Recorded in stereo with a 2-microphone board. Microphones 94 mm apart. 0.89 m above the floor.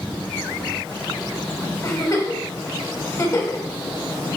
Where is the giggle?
35° left (ahead or behind), 1.2 m.